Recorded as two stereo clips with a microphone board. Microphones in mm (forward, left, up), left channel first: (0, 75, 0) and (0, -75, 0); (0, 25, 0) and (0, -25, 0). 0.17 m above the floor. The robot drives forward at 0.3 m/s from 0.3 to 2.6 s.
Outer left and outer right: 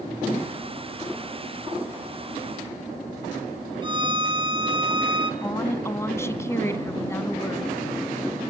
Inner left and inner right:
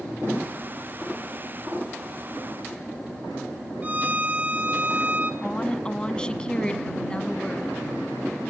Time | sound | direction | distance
3.8 | a violin | 30° right (ahead or behind) | 0.8 m
5.4 | a woman speaking | 20° left (ahead or behind) | 1.1 m